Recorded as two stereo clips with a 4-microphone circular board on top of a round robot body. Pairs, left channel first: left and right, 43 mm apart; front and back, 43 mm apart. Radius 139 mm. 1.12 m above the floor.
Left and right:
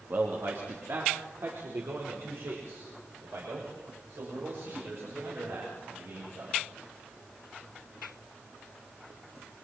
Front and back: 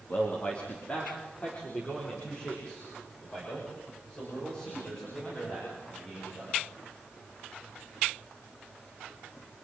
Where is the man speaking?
50° right, 3 m; by 6.5 s 70° right, 10.5 m.